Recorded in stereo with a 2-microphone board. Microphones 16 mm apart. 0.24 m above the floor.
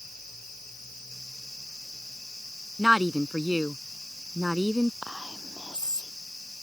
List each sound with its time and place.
2.8 s a woman speaking: 25° right (ahead or behind)
5.0 s whispering: 70° right (ahead or behind)